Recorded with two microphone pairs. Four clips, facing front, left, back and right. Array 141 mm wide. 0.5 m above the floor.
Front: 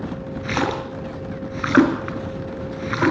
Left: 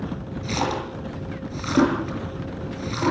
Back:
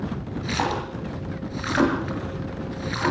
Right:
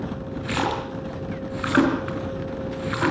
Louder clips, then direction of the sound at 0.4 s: Even, front 3 dB; straight ahead.